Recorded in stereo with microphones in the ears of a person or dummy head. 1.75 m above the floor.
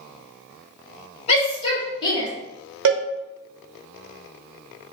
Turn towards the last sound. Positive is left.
turn(degrees=-70)  # may be behind; listen again after turning